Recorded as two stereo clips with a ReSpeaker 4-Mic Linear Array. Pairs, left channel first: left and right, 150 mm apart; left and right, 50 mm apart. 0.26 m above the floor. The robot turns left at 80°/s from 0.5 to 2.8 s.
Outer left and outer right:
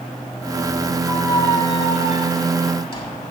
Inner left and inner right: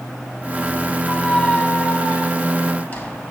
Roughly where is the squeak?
Behind.